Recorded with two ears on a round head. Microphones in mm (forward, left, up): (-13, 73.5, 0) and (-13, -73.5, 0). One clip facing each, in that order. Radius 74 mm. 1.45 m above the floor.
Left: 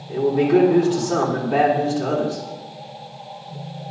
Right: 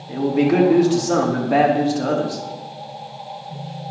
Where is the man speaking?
70° right (ahead or behind), 4 m.